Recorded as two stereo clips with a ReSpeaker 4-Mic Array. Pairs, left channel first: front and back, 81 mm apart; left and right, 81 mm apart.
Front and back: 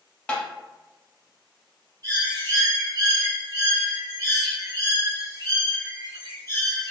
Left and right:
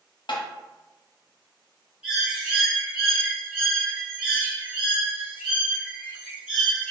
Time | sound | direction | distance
0.3 | tapping | 80° left | 0.7 m
2.0 | a bird | 165° right | 1.4 m